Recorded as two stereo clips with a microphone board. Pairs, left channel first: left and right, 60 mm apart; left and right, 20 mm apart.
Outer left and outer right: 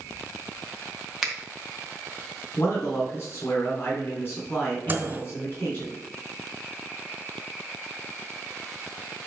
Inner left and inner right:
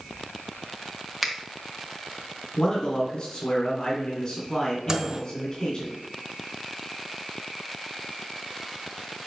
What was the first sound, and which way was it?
A finger snap, 10° right (ahead or behind).